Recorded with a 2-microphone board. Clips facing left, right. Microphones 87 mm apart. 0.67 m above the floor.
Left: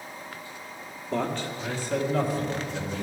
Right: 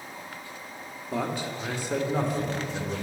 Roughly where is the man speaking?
Centre.